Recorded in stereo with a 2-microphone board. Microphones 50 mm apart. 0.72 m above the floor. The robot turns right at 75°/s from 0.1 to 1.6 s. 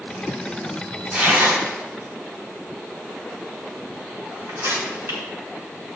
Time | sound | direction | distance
1.1 | tearing paper | 25° right (ahead or behind) | 4.5 m